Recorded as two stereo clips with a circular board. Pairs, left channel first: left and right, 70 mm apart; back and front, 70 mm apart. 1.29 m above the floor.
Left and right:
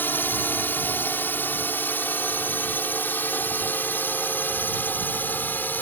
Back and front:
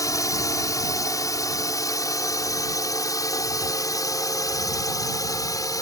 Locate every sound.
0.0 s a drone: 150° left